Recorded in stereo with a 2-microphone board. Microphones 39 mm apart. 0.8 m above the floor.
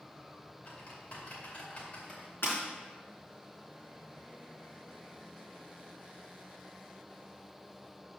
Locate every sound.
0.7 s typing on a keyboard: 45° left (ahead or behind), 2.5 m
2.4 s breaking glass: 70° left (ahead or behind), 4 m